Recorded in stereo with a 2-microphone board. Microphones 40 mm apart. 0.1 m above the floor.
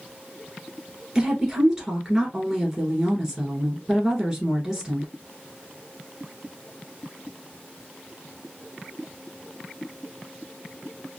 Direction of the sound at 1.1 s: 15° right (ahead or behind).